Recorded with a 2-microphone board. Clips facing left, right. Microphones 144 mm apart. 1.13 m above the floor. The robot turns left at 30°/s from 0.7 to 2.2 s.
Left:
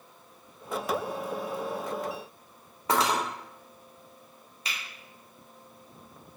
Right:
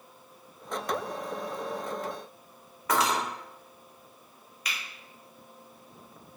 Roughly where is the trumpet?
No trumpet in this recording.